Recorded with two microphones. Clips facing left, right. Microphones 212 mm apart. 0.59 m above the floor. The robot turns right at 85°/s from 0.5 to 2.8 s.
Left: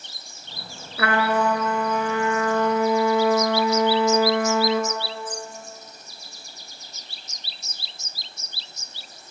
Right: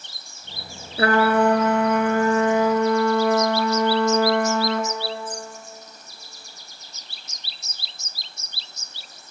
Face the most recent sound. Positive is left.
turn(degrees=5)